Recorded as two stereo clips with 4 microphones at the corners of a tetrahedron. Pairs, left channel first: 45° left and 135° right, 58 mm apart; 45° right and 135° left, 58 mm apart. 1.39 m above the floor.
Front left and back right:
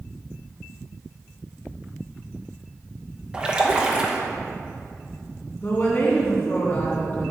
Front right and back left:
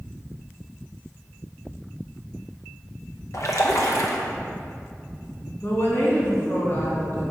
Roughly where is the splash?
Ahead right.